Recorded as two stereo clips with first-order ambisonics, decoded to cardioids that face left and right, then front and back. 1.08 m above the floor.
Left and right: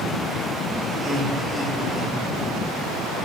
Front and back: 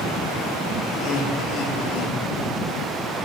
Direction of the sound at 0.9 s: 20° right.